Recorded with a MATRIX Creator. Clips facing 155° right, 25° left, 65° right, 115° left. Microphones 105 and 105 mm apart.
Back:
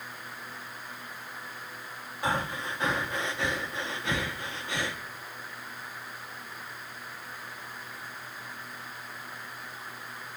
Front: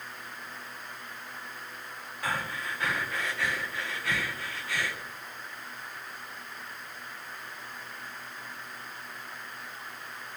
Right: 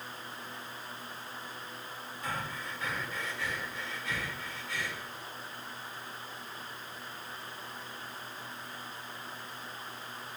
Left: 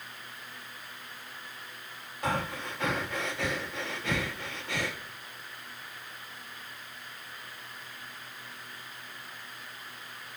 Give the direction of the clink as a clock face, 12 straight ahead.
No clink in this recording.